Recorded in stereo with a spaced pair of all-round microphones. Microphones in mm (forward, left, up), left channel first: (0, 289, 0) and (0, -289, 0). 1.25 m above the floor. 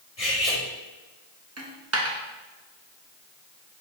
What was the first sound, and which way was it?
Cutlery clinking, 75° left (ahead or behind).